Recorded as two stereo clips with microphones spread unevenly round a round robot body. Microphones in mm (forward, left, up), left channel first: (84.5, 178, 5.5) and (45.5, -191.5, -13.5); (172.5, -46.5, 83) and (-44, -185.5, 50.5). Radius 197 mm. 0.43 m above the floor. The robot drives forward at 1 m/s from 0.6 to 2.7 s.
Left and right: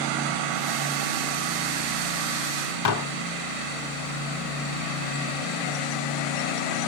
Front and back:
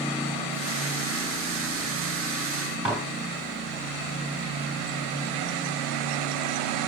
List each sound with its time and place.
2.9 s dishes clattering: 125° left, 1.7 m